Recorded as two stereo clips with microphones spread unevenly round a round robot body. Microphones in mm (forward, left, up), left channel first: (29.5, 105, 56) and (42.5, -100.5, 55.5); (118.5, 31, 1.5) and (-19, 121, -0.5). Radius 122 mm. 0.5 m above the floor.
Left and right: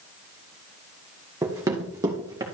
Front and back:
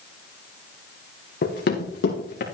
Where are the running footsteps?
10° right, 2.5 m; by 2.4 s 15° right, 3.5 m.